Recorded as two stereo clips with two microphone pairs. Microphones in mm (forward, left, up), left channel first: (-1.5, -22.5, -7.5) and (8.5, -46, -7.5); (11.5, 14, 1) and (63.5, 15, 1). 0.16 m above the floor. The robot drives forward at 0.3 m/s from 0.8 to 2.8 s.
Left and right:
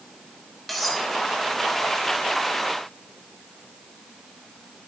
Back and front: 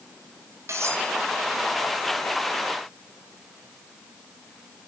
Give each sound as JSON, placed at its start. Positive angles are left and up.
{"t": 0.7, "sound": "cutlery clinking", "azimuth_deg": 30, "distance_m": 4.5}